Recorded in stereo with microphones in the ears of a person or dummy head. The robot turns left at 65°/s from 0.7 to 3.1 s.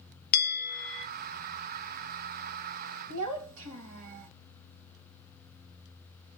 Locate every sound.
0.3 s a bell: 85° left, 0.8 m; by 1.1 s 65° left (ahead or behind), 0.8 m
3.1 s a child speaking: 70° right (ahead or behind), 1.3 m